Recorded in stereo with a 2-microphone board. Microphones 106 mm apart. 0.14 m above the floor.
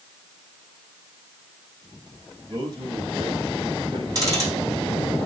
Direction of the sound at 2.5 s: 40° right (ahead or behind).